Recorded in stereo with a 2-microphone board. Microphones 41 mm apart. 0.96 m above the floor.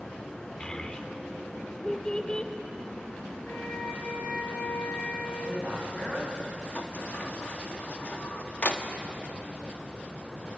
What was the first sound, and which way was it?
A child speaking, 20° left (ahead or behind).